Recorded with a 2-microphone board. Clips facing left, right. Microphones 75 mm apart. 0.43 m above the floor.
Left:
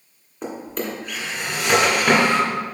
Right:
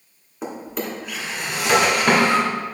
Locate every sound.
0.4 s a drawer: 5° right (ahead or behind), 1.7 m